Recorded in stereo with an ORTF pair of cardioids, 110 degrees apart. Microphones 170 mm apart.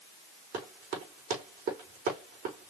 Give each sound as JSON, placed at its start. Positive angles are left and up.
{"t": 0.5, "sound": "running footsteps", "azimuth_deg": -60, "distance_m": 4.5}